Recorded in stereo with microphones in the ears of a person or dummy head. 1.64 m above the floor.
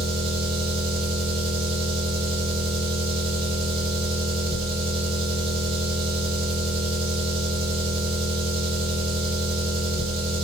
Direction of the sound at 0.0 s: 30° right (ahead or behind).